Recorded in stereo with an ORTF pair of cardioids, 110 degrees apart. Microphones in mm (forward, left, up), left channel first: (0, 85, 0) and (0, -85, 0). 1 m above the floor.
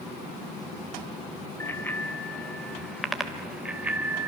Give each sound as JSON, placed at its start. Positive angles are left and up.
{"t": 1.6, "sound": "a bicycle bell", "azimuth_deg": 15, "distance_m": 3.5}